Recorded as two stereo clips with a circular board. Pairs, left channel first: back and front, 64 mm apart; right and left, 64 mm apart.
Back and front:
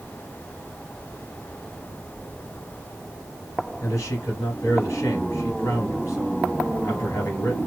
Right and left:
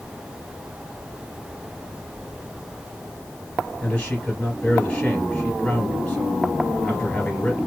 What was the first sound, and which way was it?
A man speaking, 155° right.